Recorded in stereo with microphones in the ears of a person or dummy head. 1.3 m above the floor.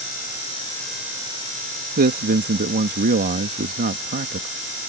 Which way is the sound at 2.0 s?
40° right (ahead or behind).